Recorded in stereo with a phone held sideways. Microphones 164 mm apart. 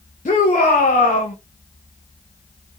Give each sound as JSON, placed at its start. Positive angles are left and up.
{"t": 0.2, "sound": "a shout", "side_deg": 50, "distance_m": 0.9}